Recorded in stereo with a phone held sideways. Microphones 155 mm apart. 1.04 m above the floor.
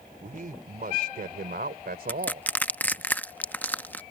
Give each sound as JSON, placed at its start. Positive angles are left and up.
{"t": 0.2, "sound": "a man speaking", "side_deg": -65}
{"t": 2.1, "sound": "crushing", "side_deg": 10}